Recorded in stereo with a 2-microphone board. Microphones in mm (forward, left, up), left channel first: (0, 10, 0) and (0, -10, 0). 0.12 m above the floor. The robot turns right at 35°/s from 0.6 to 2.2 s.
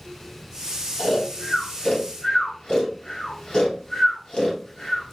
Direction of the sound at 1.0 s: 15° left (ahead or behind).